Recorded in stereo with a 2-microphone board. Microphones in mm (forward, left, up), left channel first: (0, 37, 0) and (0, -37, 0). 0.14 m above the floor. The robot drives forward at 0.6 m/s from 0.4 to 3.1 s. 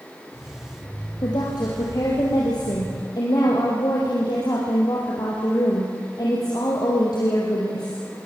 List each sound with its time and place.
1.2 s a woman speaking: 70° left (ahead or behind), 4.5 m; by 8.0 s 60° left (ahead or behind), 4.5 m